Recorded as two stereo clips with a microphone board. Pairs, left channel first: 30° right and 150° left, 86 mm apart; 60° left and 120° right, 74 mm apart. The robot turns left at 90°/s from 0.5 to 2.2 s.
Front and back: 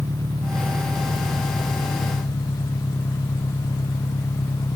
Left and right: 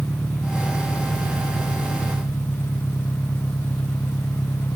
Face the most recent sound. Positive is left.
turn(degrees=0)